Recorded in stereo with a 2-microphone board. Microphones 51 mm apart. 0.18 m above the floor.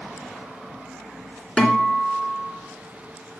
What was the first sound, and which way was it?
A guitar, 20° left (ahead or behind).